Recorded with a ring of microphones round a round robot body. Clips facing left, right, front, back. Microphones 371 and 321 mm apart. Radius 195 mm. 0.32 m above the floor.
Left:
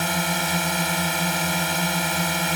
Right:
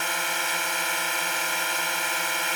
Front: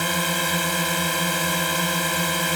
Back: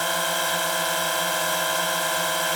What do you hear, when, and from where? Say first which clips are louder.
0.0 s a drone: left 8 dB, front 3 dB; 55° left